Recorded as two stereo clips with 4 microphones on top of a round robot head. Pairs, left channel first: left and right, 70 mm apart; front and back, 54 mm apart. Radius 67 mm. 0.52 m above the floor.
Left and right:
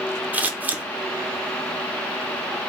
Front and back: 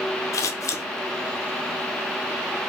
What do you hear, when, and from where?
0.3 s scissors: 25° right, 0.6 m